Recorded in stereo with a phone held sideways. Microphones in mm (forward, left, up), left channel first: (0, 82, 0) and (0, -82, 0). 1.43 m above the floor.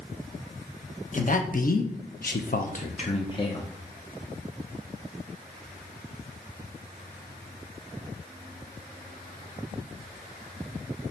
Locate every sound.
1.1 s a man speaking: 45° left (ahead or behind), 1.0 m; by 3.7 s 20° left (ahead or behind), 0.9 m